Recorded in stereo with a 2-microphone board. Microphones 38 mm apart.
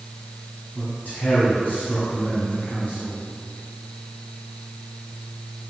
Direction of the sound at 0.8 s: 55° left (ahead or behind).